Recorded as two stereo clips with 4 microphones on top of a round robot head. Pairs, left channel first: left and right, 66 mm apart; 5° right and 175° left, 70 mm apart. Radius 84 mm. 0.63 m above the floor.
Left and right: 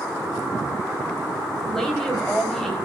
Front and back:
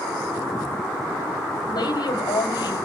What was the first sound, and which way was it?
A woman speaking, 5° left.